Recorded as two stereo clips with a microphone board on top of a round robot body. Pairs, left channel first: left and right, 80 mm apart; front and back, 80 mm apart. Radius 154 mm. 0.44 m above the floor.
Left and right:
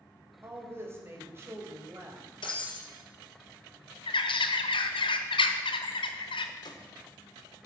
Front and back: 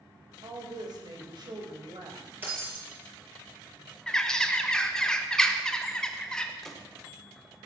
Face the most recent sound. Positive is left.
turn(degrees=85)